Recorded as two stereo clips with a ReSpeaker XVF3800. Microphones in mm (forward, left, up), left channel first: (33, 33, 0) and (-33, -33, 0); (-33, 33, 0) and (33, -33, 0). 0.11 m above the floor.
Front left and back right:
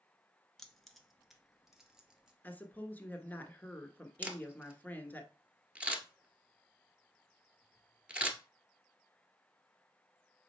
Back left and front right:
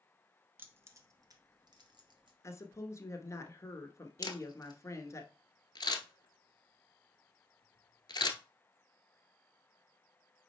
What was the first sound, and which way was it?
Keys jangling, 30° right.